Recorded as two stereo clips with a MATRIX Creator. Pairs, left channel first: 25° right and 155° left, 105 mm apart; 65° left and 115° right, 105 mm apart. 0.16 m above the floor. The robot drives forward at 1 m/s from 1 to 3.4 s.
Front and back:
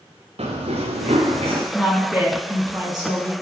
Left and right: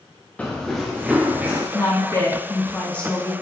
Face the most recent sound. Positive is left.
turn(degrees=150)